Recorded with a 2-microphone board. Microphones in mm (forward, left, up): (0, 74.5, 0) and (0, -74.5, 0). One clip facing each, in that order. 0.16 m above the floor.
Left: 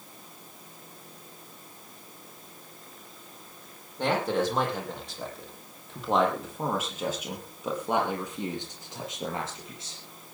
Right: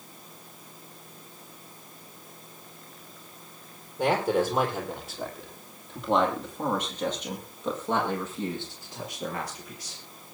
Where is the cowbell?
I don't hear a cowbell.